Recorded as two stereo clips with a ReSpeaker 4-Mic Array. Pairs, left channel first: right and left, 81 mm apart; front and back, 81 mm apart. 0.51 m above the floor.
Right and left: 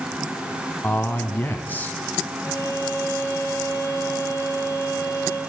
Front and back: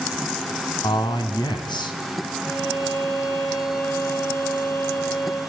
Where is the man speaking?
25° right, 3.5 m.